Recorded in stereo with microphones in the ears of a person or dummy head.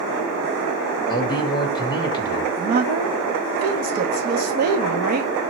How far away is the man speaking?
About 2.0 m.